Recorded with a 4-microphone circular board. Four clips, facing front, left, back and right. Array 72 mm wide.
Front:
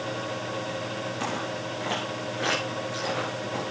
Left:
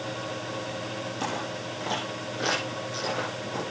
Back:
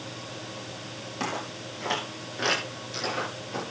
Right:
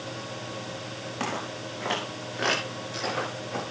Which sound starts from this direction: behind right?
Footsteps, at 1.2 s.